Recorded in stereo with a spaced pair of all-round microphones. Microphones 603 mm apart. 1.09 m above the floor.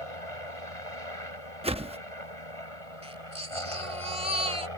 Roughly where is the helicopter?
Left.